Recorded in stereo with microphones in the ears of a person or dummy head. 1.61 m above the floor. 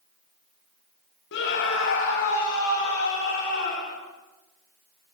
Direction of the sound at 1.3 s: 60° left (ahead or behind).